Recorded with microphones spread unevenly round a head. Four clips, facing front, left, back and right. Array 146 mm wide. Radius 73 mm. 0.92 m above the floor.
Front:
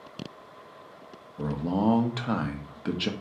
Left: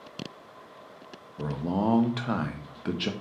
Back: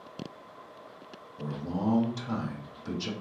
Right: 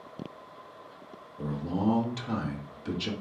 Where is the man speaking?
50° left, 0.7 m.